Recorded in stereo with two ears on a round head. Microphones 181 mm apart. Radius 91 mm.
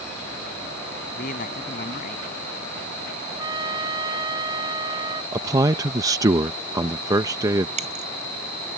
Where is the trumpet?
20° right (ahead or behind).